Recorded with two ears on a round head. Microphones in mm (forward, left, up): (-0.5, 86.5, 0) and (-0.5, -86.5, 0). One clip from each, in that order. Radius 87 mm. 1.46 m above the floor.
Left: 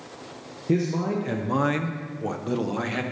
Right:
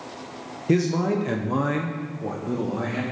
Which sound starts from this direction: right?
A man speaking, at 0.7 s.